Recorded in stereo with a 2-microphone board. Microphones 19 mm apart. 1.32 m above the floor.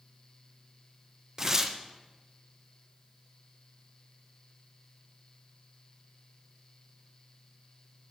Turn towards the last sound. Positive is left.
turn(degrees=-20)  # may be behind; listen again after turning